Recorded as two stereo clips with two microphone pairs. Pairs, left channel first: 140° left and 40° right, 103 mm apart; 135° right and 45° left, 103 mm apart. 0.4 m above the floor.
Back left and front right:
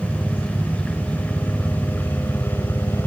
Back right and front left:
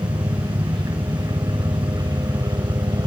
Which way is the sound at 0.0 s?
60° left.